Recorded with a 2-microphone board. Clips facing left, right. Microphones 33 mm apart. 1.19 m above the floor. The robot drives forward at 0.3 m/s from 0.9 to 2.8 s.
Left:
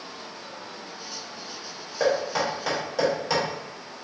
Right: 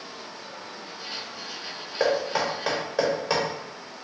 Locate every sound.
2.0 s knocking: 15° right (ahead or behind), 1.1 m; by 3.4 s 10° right (ahead or behind), 1.3 m